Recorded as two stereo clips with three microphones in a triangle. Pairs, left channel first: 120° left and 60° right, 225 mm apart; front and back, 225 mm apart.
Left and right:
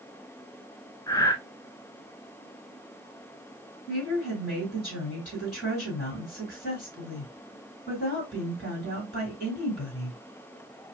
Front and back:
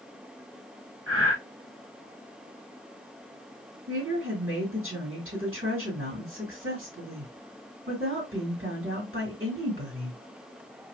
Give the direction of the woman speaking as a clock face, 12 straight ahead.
6 o'clock.